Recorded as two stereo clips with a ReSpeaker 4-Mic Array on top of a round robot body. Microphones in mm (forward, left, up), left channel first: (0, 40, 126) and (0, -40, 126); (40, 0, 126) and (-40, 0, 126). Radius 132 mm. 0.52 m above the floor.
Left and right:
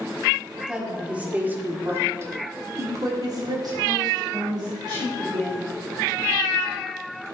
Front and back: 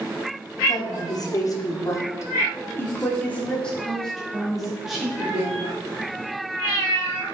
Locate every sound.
0.7 s a woman speaking: 10° right, 2.5 m; by 5.6 s 105° right, 3 m